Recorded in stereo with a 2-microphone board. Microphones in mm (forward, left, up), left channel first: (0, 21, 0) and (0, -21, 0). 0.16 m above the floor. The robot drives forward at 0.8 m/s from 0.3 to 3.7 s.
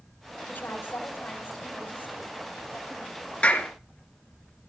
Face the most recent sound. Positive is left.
turn(degrees=35)  # may be behind; listen again after turning